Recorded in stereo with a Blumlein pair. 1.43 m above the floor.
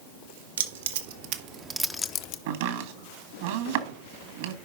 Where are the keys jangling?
65° right, 1.5 m; by 2.4 s 45° left, 0.8 m.